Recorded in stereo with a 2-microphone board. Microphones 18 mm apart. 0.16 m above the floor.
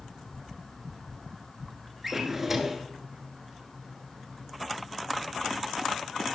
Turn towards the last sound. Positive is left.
turn(degrees=-20)  # may be behind; listen again after turning